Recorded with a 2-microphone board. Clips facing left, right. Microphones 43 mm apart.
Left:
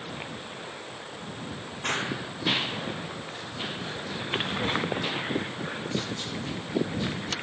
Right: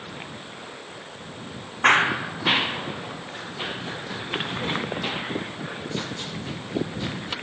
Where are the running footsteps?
55° right (ahead or behind); by 7.3 s 15° right (ahead or behind).